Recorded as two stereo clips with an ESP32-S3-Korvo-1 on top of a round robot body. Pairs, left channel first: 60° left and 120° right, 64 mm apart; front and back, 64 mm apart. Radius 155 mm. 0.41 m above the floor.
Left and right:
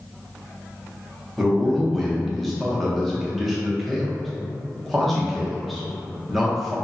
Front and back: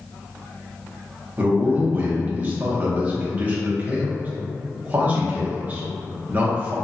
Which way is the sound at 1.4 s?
150° left.